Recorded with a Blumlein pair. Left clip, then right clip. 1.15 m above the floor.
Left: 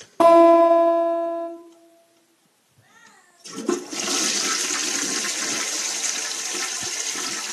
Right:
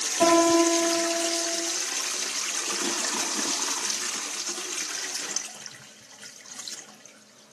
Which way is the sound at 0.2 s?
55° left.